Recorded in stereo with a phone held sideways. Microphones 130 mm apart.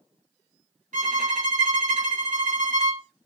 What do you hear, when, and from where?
0.9 s a violin: 85° right, 1.9 m